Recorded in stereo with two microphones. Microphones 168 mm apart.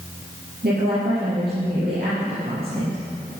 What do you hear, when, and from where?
0.6 s a woman speaking: 70° right (ahead or behind), 3.5 m